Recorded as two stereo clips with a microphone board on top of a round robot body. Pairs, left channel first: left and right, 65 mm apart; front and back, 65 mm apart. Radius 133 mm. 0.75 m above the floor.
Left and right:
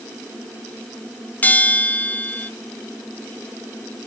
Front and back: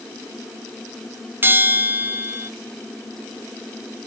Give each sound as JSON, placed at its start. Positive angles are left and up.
{"t": 1.4, "sound": "a bell", "azimuth_deg": 145, "distance_m": 0.9}